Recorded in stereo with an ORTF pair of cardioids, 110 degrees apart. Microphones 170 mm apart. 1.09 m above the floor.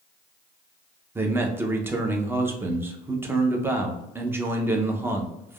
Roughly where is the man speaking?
Ahead.